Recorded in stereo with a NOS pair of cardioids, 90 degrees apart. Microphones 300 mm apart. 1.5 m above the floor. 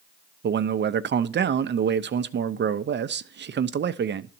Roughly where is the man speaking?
Ahead right.